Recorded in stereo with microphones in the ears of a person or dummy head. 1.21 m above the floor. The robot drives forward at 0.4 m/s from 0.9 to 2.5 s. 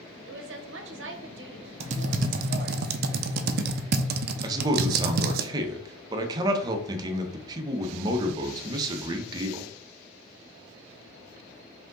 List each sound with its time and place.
0.2 s a woman speaking: 65° right (ahead or behind), 0.9 m; by 2.8 s 45° right (ahead or behind), 1.1 m
1.8 s typing on a keyboard: 40° right (ahead or behind), 0.7 m; by 5.4 s 55° right (ahead or behind), 0.5 m
4.4 s a man speaking: 25° right (ahead or behind), 0.9 m